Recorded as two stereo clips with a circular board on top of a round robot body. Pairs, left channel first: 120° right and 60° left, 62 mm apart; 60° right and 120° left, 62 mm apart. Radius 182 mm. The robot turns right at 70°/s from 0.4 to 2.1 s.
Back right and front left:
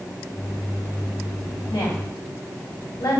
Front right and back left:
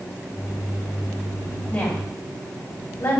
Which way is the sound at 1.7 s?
140° right.